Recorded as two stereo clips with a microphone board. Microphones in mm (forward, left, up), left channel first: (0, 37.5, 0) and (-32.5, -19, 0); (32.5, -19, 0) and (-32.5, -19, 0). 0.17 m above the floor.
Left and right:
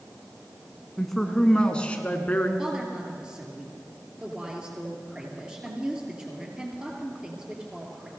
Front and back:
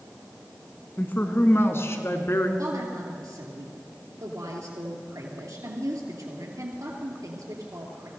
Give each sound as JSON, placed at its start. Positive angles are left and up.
{"t": 1.0, "sound": "a man speaking", "azimuth_deg": -25, "distance_m": 1.4}
{"t": 2.6, "sound": "a woman speaking", "azimuth_deg": 165, "distance_m": 3.0}